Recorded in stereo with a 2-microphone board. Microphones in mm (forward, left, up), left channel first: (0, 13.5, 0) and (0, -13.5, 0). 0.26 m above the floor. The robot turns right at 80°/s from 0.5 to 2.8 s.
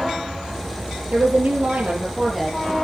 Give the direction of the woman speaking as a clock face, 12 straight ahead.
4 o'clock.